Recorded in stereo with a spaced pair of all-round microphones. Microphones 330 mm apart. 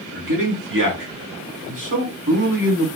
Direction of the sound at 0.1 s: 75° right (ahead or behind).